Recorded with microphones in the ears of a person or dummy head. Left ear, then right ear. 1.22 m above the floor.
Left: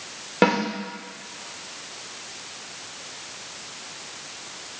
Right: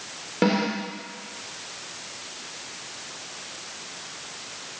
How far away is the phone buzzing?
No phone buzzing in this recording.